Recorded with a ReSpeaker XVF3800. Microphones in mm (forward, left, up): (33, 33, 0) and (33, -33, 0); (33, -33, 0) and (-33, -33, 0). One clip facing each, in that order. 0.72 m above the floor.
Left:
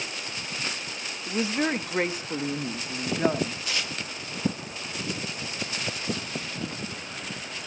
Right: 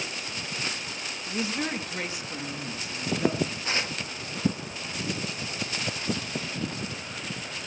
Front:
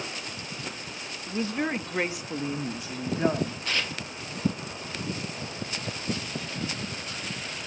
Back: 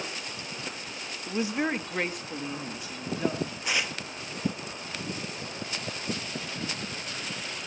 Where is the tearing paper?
115° right, 1.0 m.